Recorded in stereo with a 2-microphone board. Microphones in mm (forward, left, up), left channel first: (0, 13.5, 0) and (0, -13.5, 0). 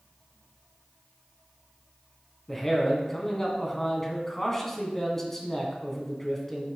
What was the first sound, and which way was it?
A man speaking, 10° left (ahead or behind).